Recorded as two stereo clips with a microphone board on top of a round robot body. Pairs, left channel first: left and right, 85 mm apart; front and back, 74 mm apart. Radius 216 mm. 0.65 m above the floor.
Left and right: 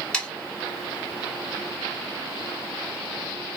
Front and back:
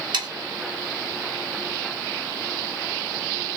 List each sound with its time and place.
0.1 s sawing: 170° left, 0.6 m